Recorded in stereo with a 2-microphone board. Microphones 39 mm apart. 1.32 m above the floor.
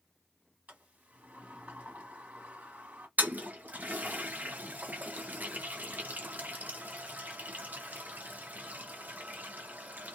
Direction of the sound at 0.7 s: 40° right (ahead or behind).